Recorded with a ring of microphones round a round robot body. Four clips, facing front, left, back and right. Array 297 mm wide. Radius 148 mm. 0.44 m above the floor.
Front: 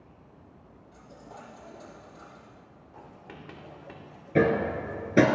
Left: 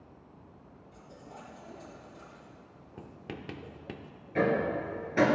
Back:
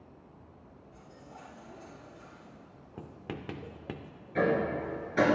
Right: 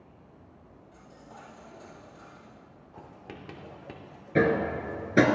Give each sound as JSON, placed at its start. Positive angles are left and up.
{"t": 0.9, "sound": "a dropped coin", "azimuth_deg": 20, "distance_m": 5.0}
{"t": 3.0, "sound": "writing", "azimuth_deg": 165, "distance_m": 0.6}
{"t": 4.3, "sound": "hammering", "azimuth_deg": -35, "distance_m": 1.6}